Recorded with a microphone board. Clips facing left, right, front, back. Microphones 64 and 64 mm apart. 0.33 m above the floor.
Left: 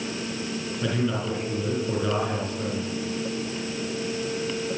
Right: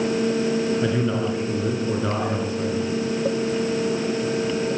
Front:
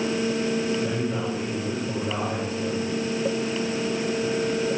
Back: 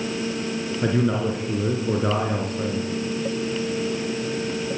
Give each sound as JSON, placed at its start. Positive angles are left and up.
{"t": 0.8, "sound": "a man speaking", "azimuth_deg": -160, "distance_m": 5.0}